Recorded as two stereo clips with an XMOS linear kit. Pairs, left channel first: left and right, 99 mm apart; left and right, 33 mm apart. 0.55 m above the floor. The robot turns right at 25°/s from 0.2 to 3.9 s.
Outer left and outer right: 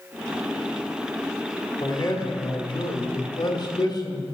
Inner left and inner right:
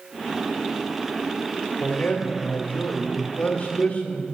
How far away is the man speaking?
About 1.1 m.